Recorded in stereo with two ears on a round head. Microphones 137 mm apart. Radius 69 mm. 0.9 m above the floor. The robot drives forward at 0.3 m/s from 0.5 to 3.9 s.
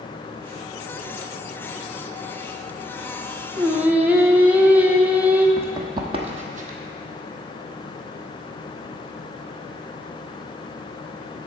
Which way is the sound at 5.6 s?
15° right (ahead or behind).